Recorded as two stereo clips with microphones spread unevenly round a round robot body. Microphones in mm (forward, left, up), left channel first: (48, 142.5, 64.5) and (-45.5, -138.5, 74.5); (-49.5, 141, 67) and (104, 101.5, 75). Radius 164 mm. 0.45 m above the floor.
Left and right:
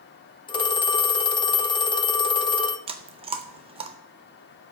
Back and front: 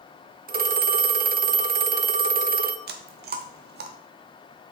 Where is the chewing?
35° right, 0.6 m.